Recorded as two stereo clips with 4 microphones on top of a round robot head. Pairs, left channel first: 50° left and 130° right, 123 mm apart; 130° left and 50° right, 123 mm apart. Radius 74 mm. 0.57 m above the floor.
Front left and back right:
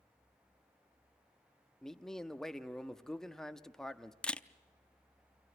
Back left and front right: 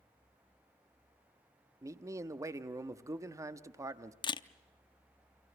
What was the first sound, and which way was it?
A man speaking, 25° right.